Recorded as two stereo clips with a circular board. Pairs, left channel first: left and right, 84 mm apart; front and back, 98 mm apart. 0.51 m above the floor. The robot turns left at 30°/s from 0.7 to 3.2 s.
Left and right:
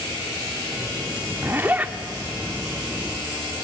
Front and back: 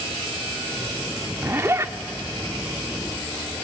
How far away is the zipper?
About 0.9 m.